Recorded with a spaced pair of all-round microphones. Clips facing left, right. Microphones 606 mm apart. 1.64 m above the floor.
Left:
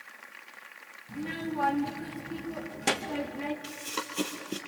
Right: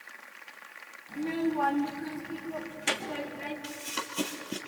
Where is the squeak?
No squeak in this recording.